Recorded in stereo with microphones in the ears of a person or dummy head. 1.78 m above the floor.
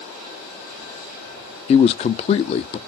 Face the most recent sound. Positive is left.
turn(degrees=30)  # may be behind; listen again after turning